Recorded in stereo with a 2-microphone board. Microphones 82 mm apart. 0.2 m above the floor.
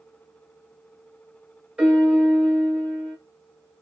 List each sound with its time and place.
1.8 s a piano: 10° right (ahead or behind), 1.9 m